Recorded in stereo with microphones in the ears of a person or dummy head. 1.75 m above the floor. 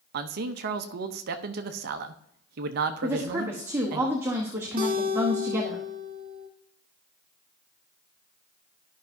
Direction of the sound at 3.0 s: 15° right (ahead or behind).